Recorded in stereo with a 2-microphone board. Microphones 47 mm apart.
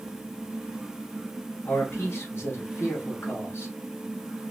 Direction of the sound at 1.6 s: 55° left (ahead or behind).